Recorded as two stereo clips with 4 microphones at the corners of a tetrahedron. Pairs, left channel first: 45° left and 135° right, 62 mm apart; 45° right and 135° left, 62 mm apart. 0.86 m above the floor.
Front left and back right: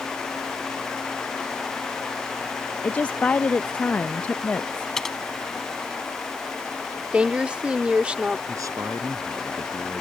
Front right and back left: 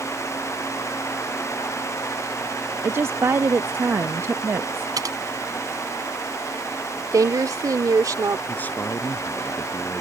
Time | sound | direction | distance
2.8 | a woman speaking | 110° left | ?
5.0 | typing on a keyboard | 130° left | ?
7.1 | a woman speaking | 155° left | ?
8.5 | a man speaking | 105° right | ?